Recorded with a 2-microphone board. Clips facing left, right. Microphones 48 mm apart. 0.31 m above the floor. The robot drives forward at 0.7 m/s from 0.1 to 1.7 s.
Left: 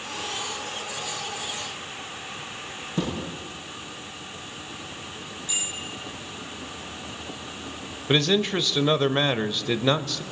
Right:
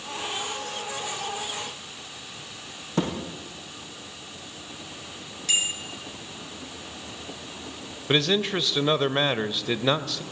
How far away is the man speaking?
About 1.0 m.